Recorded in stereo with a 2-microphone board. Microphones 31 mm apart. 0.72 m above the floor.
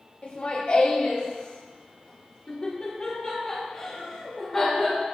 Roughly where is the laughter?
Left.